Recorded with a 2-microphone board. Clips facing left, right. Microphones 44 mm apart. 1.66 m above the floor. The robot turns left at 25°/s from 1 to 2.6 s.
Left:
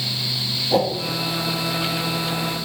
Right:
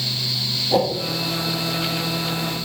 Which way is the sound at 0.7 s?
5° left (ahead or behind).